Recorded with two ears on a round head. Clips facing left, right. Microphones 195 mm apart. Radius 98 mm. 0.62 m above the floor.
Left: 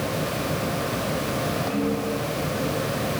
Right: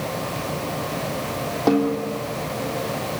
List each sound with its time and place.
1.7 s a snare drum: 70° right (ahead or behind), 4 m